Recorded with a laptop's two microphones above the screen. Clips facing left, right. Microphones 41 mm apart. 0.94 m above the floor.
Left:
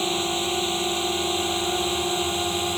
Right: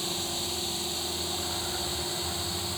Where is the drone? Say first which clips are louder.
Left 9 dB; 50° left (ahead or behind); by 2.8 s 60° left (ahead or behind).